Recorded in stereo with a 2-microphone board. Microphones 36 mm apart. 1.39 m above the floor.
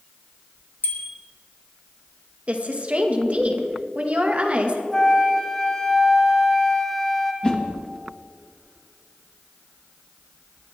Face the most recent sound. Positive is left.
turn(degrees=25)  # may be behind; listen again after turning